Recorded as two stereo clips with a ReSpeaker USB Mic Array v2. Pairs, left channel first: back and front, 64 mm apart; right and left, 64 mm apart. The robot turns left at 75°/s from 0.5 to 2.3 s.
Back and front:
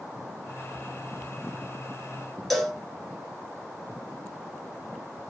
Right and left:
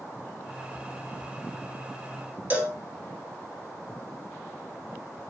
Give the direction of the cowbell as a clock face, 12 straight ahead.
9 o'clock.